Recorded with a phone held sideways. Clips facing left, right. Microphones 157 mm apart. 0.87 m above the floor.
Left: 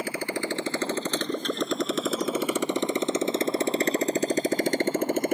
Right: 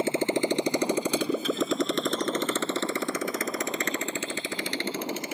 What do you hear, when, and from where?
0.0 s a motorcycle: 25° right (ahead or behind); by 5.3 s 55° left (ahead or behind)